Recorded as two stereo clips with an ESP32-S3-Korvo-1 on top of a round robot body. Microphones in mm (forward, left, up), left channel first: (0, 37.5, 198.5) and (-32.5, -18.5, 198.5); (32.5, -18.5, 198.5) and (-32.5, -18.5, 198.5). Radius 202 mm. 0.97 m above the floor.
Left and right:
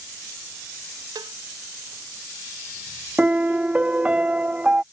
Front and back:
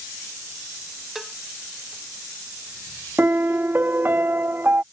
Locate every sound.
1.1 s a cowbell: 95° right
3.2 s a piano: 175° right